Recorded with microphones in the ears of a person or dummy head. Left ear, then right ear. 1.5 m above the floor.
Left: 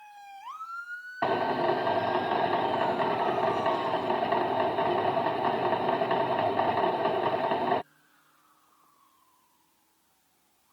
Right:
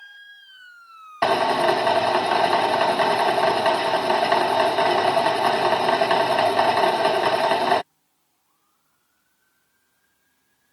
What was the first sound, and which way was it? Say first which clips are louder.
A drill: right 8 dB; 70° right (ahead or behind).